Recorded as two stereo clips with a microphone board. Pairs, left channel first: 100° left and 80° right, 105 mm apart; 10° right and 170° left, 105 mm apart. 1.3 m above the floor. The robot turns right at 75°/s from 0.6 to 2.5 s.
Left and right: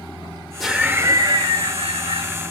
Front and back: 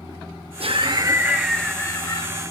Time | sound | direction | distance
0.6 | laughter | 170° right | 1.0 m